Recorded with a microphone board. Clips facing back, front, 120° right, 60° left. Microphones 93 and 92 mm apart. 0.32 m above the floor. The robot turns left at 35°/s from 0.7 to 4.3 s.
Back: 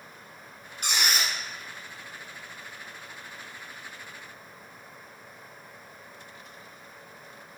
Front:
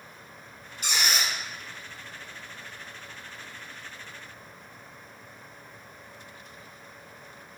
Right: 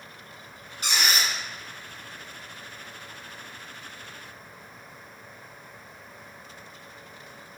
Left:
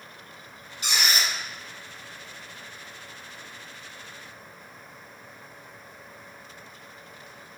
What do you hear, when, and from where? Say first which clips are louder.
0.8 s a squeak: even, right 1 dB; 160° right, 1.6 m; by 1.3 s straight behind, 1.6 m